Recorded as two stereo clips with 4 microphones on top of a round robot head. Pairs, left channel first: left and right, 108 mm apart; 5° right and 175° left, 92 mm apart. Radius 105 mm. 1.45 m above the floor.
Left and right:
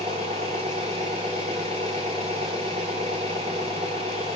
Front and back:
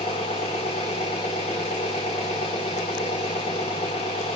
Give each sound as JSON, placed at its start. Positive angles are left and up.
{"t": 0.0, "sound": "an engine running", "azimuth_deg": -40, "distance_m": 1.3}